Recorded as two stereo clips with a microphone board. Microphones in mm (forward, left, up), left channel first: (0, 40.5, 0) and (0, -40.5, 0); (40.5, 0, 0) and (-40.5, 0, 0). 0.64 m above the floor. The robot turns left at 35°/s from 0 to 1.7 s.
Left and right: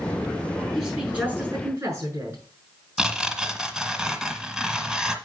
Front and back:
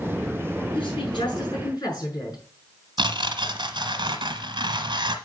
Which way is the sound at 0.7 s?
5° right.